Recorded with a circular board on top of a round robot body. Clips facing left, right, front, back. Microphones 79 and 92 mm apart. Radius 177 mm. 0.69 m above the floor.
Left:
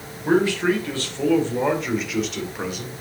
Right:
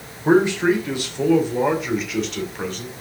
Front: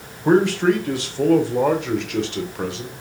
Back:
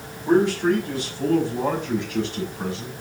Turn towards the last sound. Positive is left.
turn(degrees=10)